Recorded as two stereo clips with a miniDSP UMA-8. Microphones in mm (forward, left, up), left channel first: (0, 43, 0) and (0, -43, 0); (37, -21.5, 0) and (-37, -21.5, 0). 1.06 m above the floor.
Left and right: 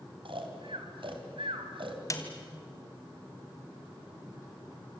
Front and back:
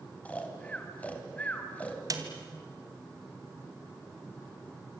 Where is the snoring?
70° right, 3.5 m.